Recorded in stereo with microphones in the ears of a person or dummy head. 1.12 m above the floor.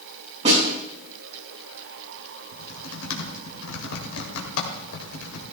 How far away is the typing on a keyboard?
About 2.5 m.